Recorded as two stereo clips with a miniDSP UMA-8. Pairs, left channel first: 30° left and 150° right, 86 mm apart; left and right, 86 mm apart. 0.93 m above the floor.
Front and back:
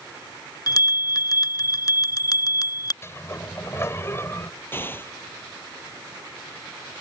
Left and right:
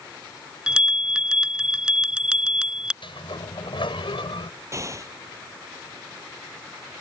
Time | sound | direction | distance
0.7 | a bell | 10° right | ?
3.0 | a sliding door | 85° left | ?
4.7 | an explosion | 35° right | ?